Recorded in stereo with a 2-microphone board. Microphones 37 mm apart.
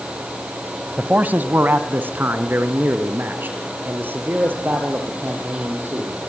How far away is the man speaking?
About 1.2 m.